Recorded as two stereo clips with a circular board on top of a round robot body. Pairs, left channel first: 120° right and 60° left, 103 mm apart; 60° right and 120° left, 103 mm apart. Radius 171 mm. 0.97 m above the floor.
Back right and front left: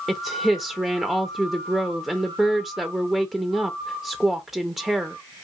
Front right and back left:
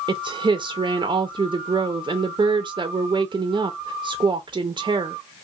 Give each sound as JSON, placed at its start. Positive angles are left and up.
{"t": 0.1, "sound": "a woman speaking", "azimuth_deg": 145, "distance_m": 0.5}